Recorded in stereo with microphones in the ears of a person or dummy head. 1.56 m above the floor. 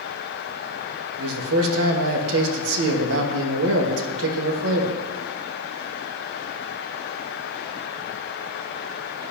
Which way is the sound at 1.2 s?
75° right (ahead or behind).